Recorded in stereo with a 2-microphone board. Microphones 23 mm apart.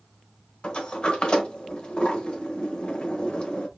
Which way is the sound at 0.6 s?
45° left (ahead or behind).